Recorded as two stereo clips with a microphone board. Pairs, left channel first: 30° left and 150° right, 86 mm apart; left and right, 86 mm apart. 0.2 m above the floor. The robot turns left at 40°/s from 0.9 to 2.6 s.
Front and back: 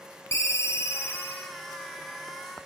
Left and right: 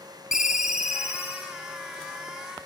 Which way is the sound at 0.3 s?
10° right.